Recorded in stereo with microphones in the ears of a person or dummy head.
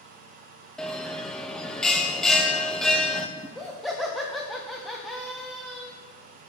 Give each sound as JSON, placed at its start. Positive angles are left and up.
{"t": 0.8, "sound": "a bell", "side_deg": 10, "distance_m": 0.8}
{"t": 3.4, "sound": "laughter", "side_deg": 0, "distance_m": 1.6}